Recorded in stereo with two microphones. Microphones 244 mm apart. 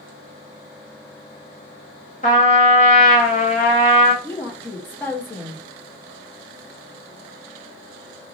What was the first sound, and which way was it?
A trumpet, 30° left (ahead or behind).